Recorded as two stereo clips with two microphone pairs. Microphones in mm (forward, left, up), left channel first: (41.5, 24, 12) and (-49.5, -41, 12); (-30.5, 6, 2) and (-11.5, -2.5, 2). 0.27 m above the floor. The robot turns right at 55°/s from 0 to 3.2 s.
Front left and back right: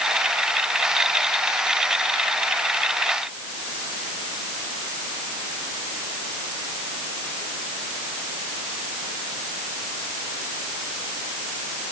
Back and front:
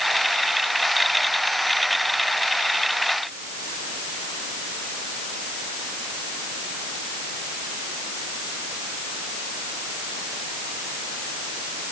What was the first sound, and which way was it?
Only background noise.